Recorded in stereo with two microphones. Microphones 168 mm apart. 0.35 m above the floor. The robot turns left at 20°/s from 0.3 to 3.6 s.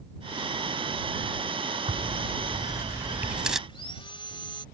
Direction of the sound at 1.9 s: 145° right.